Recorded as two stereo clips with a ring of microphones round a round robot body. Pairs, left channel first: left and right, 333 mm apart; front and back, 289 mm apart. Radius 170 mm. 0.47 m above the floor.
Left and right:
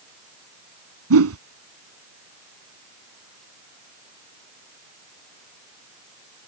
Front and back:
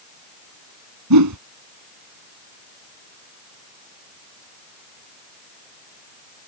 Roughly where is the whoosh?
Behind right.